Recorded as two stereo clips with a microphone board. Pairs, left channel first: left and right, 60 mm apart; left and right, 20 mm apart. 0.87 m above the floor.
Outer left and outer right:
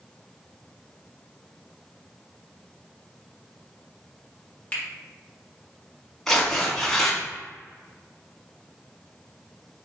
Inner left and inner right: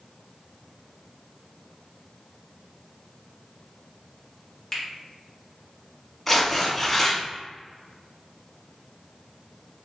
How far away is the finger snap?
About 1.0 m.